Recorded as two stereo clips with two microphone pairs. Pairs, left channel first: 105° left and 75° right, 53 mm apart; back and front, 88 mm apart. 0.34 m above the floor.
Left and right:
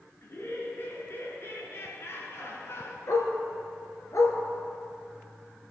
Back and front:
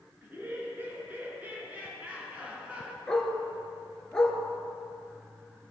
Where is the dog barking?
100° left, 2.5 m.